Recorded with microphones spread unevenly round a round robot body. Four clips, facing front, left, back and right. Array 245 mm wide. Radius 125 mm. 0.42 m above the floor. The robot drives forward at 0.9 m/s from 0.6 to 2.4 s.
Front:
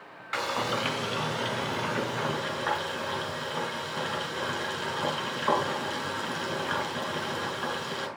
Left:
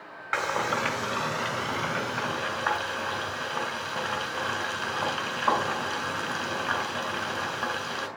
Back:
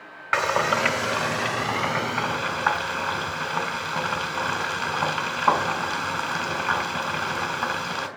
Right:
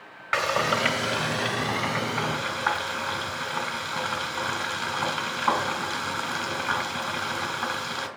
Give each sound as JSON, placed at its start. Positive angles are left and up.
{"t": 0.3, "sound": "frying", "azimuth_deg": -170, "distance_m": 1.7}